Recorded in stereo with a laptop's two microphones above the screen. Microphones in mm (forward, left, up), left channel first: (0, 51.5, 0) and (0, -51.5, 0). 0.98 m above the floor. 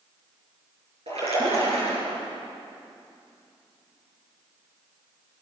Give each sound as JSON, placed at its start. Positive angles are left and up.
{"t": 1.1, "sound": "a splash", "side_deg": -75, "distance_m": 7.5}